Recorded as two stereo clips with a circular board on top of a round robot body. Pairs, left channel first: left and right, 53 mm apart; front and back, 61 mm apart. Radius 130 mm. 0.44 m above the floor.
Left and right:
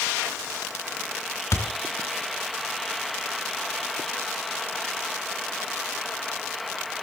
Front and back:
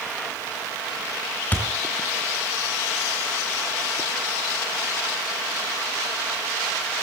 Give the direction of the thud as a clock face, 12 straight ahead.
10 o'clock.